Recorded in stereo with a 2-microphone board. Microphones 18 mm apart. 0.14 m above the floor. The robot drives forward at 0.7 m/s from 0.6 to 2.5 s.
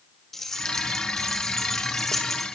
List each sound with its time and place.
0.3 s keys jangling: 20° left (ahead or behind), 5 m; by 2.5 s 15° left (ahead or behind), 6 m